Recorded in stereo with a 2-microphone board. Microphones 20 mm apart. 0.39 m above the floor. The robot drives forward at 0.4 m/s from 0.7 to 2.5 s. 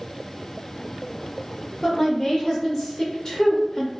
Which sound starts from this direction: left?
A woman speaking, at 1.8 s.